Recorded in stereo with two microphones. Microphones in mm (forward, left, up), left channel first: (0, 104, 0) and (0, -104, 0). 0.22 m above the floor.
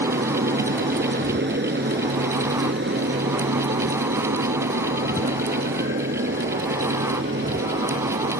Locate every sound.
0.0 s an aircraft: 55° right (ahead or behind); by 8.4 s 70° right (ahead or behind)